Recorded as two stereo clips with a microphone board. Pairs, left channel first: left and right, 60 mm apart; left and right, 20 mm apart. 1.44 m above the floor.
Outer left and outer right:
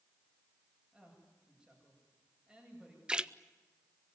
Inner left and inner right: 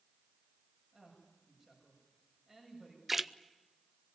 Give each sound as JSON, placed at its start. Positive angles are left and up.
{"t": 0.9, "sound": "a woman speaking", "side_deg": -15, "distance_m": 8.0}
{"t": 3.1, "sound": "a splash", "side_deg": -15, "distance_m": 0.6}